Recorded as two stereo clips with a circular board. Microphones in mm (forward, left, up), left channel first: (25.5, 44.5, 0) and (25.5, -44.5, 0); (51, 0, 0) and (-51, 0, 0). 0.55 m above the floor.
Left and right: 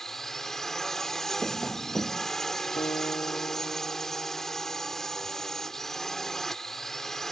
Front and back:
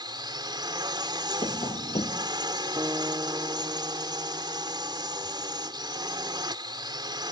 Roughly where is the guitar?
Behind left.